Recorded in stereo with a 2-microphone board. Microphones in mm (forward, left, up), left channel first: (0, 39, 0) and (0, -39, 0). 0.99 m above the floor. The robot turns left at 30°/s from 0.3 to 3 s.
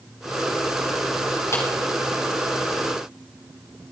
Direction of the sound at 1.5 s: 40° left (ahead or behind).